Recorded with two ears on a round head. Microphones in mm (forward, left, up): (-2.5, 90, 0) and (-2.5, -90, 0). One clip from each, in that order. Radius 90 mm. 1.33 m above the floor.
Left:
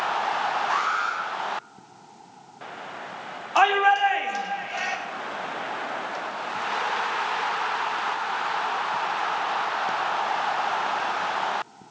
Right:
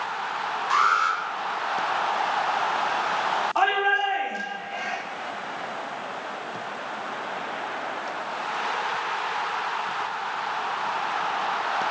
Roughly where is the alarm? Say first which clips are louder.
Right 4 dB; right.